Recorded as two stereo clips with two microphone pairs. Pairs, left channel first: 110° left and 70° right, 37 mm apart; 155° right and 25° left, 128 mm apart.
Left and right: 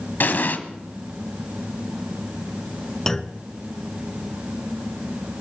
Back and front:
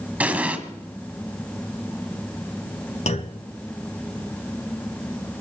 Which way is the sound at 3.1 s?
175° right.